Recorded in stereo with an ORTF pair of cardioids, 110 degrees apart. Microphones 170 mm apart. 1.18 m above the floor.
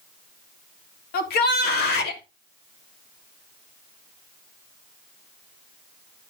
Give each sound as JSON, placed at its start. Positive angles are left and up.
{"t": 1.1, "sound": "a shout", "azimuth_deg": 70, "distance_m": 3.0}